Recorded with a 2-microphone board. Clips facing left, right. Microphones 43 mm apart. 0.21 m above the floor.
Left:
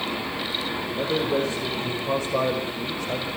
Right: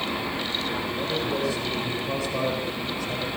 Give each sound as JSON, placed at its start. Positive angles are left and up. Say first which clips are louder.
{"t": 0.9, "sound": "a man speaking", "louder": "left 6 dB", "side_deg": 55, "distance_m": 7.0}